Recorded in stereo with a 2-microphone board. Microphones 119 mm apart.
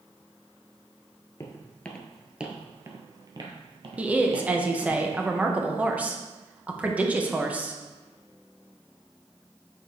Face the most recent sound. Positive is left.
turn(degrees=-10)  # may be behind; listen again after turning